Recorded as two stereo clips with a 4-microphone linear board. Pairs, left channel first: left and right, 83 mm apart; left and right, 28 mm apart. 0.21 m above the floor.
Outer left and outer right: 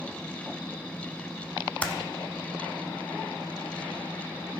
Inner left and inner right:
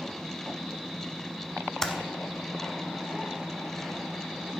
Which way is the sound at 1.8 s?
20° left (ahead or behind).